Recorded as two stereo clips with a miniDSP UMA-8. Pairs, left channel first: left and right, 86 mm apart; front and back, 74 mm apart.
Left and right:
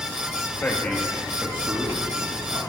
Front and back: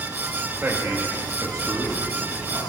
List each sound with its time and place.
0.6 s a man speaking: 140° left, 1.1 m; by 2.6 s 135° right, 2.0 m